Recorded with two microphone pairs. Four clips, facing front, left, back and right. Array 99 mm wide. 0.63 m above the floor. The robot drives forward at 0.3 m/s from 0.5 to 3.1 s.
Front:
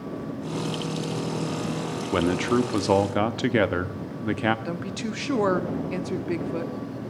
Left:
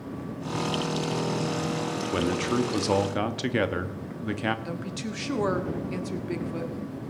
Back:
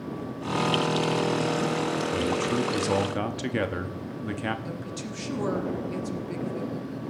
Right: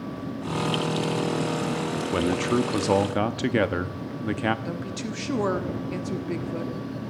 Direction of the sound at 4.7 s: 10° right.